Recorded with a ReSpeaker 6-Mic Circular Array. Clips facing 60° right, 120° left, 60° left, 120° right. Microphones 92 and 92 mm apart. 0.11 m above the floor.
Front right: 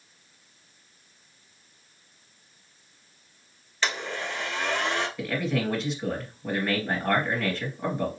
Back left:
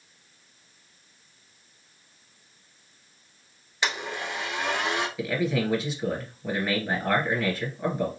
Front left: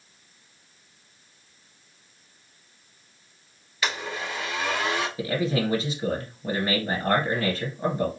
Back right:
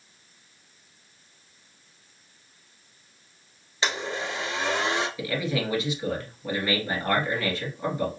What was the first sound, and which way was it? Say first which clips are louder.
A blender: even, back right 1 dB; 170° right.